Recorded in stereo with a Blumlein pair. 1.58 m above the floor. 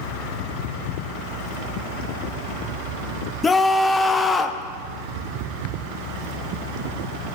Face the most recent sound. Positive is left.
turn(degrees=10)